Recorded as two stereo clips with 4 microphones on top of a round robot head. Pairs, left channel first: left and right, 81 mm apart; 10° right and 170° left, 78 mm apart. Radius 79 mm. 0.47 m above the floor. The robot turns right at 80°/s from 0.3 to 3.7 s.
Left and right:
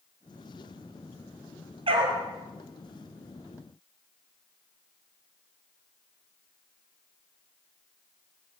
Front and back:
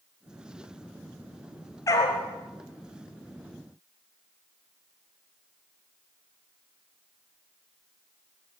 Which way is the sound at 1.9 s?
70° right.